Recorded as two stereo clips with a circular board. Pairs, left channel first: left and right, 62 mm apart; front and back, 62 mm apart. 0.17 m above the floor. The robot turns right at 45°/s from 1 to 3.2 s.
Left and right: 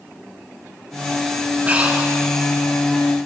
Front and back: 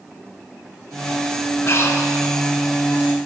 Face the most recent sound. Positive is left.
turn(degrees=35)